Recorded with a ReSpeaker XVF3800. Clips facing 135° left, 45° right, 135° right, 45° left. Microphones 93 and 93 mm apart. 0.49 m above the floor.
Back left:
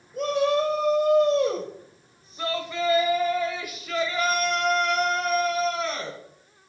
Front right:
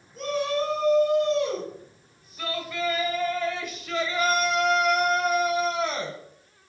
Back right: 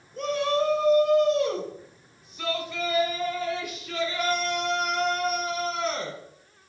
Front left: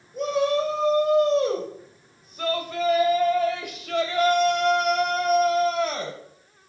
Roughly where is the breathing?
No breathing in this recording.